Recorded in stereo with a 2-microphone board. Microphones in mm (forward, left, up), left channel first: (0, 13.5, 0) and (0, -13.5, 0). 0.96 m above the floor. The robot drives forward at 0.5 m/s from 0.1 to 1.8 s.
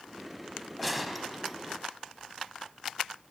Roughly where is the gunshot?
Centre.